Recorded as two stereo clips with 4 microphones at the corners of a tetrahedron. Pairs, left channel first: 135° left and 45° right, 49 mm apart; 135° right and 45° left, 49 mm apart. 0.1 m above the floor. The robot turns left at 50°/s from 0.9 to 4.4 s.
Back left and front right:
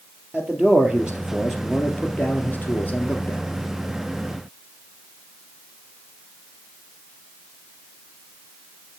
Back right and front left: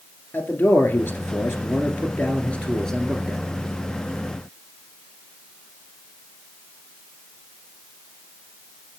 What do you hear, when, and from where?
0.3 s a man speaking: 110° right, 2 m; by 3.4 s 125° left, 2 m